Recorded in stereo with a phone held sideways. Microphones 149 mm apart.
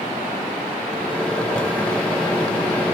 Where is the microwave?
10° left (ahead or behind), 0.7 m.